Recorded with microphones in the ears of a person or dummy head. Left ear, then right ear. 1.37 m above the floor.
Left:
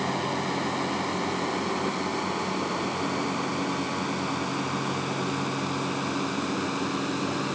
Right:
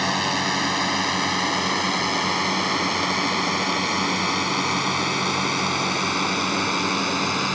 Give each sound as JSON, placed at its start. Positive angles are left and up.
{"t": 0.0, "sound": "a drone", "side_deg": -85}